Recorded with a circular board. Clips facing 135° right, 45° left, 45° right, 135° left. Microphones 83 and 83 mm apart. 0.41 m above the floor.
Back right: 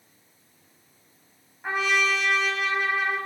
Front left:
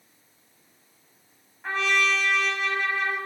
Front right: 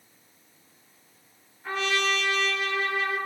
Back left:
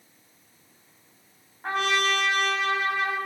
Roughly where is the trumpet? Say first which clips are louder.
Even, back left 2 dB; behind left.